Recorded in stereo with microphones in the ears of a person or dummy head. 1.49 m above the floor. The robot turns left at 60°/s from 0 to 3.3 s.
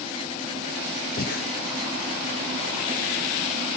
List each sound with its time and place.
1.2 s breathing: 45° left (ahead or behind), 1.0 m; by 1.4 s 60° left (ahead or behind), 1.0 m